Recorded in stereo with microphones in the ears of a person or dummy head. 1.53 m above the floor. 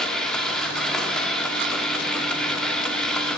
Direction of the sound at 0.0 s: 5° left (ahead or behind).